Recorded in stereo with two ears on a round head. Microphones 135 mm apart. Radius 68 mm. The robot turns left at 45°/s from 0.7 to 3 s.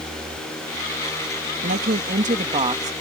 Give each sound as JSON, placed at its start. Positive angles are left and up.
{"t": 1.6, "sound": "a woman speaking", "azimuth_deg": -100}